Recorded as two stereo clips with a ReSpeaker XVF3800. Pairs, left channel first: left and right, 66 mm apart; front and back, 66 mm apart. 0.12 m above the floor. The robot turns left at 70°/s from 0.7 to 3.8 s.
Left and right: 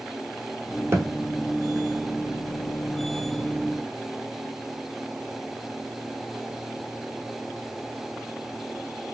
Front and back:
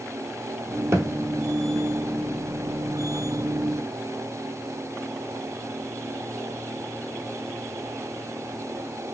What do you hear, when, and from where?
0.9 s a thud: 130° right, 1.0 m; by 1.1 s 140° right, 1.0 m